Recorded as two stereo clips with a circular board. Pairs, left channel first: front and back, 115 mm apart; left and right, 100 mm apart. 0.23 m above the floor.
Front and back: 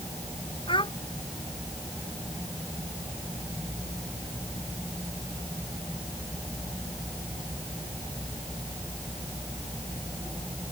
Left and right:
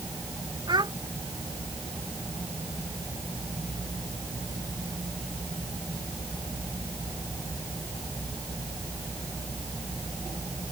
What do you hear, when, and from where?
0.7 s a child speaking: 45° right